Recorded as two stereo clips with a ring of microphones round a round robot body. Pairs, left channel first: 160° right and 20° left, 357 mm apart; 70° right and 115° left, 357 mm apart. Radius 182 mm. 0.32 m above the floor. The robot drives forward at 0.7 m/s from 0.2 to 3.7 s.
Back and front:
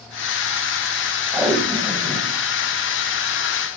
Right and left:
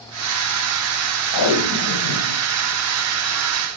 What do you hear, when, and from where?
1.3 s tape being pulled: 65° right, 2.5 m; by 2.4 s 85° right, 2.5 m